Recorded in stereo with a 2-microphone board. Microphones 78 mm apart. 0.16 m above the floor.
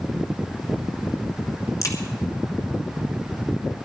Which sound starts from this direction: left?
A crack, at 1.8 s.